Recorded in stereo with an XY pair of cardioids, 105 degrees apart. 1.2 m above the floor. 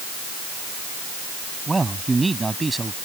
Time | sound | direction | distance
1.7 | a man speaking | 20° right | ?